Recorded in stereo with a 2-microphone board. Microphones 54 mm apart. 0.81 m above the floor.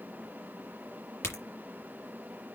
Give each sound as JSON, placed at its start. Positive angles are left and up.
{"t": 1.2, "sound": "a crack", "side_deg": 50, "distance_m": 4.0}